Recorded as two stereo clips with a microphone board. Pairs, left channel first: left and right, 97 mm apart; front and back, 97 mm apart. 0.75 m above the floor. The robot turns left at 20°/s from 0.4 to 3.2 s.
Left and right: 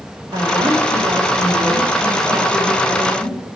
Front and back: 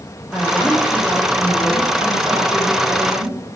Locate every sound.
0.3 s a woman speaking: 90° right, 1.5 m; by 3.5 s 145° right, 1.5 m